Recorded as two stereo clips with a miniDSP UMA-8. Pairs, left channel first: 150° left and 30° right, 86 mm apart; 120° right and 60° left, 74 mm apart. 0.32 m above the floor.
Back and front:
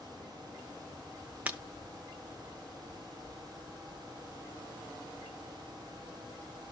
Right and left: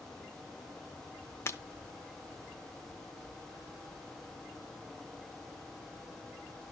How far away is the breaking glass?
About 0.7 m.